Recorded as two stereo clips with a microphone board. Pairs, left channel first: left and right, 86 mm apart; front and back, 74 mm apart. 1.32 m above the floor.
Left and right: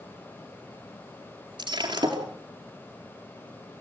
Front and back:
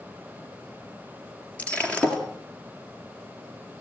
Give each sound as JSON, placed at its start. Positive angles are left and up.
{"t": 1.6, "sound": "breaking glass", "azimuth_deg": -70, "distance_m": 4.5}